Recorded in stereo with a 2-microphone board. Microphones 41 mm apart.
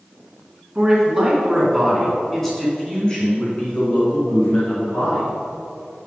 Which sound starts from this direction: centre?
A man speaking, at 0.8 s.